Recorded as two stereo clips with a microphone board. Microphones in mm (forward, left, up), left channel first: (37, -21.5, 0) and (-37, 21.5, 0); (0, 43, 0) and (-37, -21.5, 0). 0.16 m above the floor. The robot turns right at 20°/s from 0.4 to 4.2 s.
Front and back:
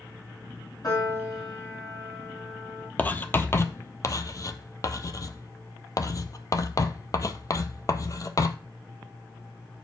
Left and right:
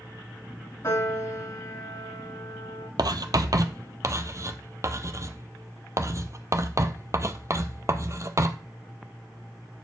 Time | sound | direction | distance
0.8 | a piano | 10° left | 5 m
3.0 | writing | 100° right | 0.6 m